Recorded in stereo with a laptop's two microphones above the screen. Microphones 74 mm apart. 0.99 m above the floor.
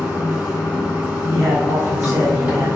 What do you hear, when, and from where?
0.0 s running water: 15° right (ahead or behind), 1.8 m
1.3 s a man speaking: 45° right (ahead or behind), 0.9 m